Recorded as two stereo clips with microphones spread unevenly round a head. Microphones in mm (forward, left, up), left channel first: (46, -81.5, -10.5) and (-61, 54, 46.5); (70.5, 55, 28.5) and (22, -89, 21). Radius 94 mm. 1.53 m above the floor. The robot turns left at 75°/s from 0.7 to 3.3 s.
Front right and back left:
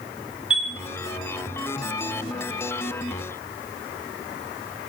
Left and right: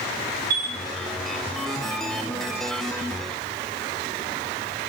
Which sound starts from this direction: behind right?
A chime, at 0.5 s.